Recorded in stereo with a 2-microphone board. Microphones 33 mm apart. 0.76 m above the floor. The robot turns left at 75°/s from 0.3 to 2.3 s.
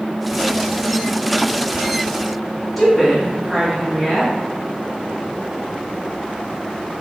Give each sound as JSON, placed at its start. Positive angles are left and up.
{"t": 2.8, "sound": "a woman speaking", "side_deg": 5, "distance_m": 0.9}